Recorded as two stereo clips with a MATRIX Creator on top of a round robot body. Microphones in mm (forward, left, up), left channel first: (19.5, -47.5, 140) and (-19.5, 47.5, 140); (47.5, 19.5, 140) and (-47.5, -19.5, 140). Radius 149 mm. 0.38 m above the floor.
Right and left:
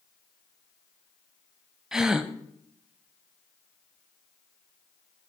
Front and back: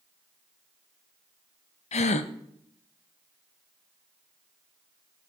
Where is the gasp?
30° left, 0.6 m.